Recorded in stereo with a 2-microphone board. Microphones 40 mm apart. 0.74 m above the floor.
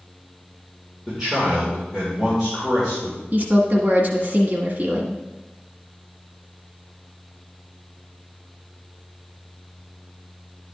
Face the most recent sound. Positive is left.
turn(degrees=-40)  # may be behind; listen again after turning